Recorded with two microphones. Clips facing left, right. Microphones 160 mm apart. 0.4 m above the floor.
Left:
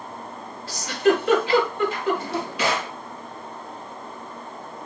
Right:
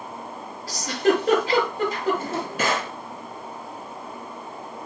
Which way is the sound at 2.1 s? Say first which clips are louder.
Even; 45° right (ahead or behind).